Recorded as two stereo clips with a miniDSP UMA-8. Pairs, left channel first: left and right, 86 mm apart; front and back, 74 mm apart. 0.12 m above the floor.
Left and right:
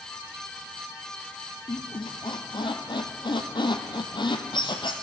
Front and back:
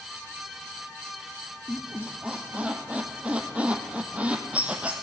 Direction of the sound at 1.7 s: 105° left.